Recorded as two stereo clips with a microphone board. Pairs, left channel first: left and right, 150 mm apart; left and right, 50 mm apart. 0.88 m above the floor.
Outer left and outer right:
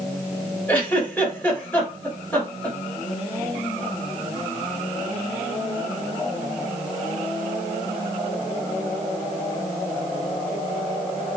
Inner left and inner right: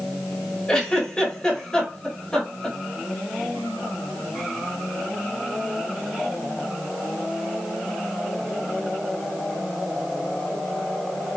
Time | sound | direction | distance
0.7 | a giggle | 10° left (ahead or behind) | 2.0 m